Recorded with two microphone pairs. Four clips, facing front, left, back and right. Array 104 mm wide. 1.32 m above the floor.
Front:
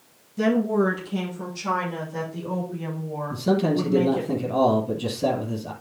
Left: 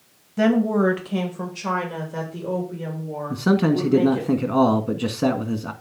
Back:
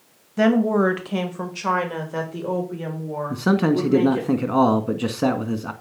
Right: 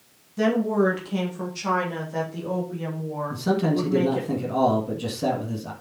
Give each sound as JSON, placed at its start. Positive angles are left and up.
{"t": 0.4, "sound": "a woman speaking", "azimuth_deg": 165, "distance_m": 1.6}
{"t": 3.3, "sound": "a man speaking", "azimuth_deg": 160, "distance_m": 1.7}